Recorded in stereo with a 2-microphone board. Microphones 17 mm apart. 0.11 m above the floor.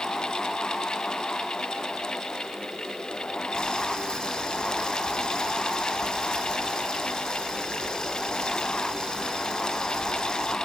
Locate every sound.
3.5 s boiling: 45° left (ahead or behind), 2 m